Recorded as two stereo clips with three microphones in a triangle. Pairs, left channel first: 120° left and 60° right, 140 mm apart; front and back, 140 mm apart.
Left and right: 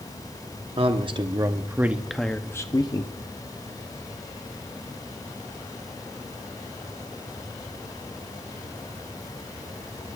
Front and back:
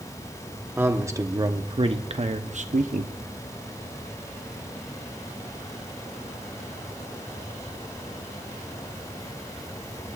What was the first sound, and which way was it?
A man speaking, 105° right.